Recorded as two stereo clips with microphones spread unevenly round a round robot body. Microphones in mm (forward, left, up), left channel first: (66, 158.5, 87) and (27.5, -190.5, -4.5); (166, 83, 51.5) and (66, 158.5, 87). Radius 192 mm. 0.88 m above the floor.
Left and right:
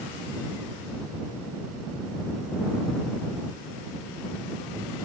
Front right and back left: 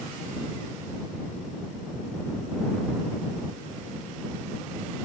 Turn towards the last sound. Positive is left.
No sound to turn to.